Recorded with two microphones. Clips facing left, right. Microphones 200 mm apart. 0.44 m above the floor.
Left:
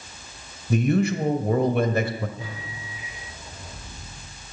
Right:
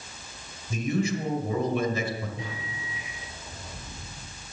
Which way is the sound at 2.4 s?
80° right.